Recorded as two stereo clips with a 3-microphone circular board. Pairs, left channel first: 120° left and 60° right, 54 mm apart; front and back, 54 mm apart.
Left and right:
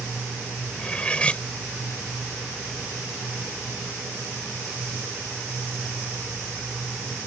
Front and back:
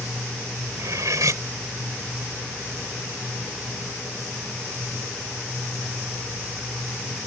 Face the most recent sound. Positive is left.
turn(degrees=-175)